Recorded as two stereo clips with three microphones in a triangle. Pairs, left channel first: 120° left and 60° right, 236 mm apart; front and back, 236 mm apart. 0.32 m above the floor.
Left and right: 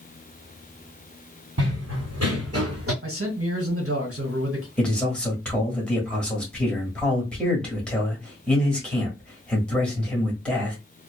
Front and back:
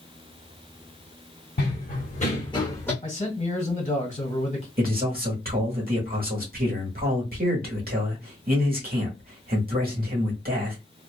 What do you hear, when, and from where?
1.6 s running footsteps: 50° right, 1.3 m; by 2.9 s 80° right, 1.1 m
3.0 s a man speaking: 55° right, 1.6 m
4.8 s a man speaking: 155° right, 1.2 m